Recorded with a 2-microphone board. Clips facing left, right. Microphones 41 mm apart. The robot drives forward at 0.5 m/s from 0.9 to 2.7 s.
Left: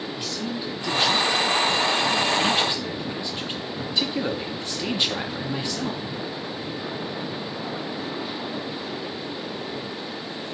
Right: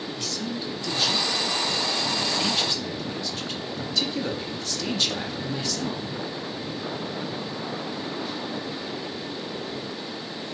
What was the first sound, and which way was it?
A man speaking, 15° left (ahead or behind).